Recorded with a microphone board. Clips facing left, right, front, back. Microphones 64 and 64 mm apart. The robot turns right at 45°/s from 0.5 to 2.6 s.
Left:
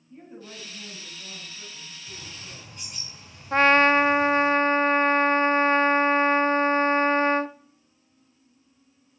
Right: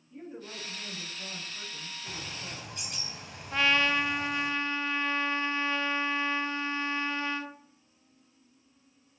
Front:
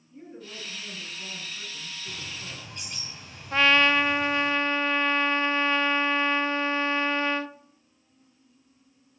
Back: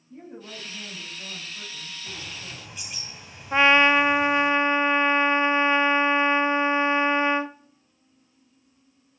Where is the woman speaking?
170° left, 8 m; by 2.8 s 95° right, 8 m.